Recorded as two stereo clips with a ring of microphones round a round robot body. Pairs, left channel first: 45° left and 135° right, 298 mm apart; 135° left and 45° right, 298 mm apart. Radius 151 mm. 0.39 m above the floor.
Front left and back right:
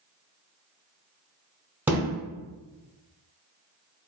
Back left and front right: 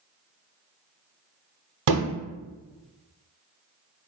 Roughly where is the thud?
Ahead right.